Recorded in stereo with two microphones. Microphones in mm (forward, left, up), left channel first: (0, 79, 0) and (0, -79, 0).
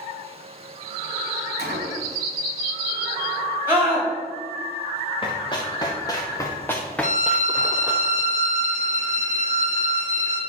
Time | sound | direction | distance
1.6 | a gunshot | 80° right | 0.9 m
3.7 | a scream | 15° right (ahead or behind) | 1.8 m
5.2 | running footsteps | 30° left (ahead or behind) | 2.5 m
7.0 | a violin | 60° left (ahead or behind) | 1.1 m